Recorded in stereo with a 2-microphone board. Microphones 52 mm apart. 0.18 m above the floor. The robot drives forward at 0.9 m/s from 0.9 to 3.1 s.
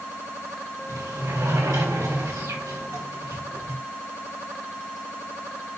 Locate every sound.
0.9 s a sliding door: 70° right (ahead or behind), 5 m; by 3.8 s 85° right, 5 m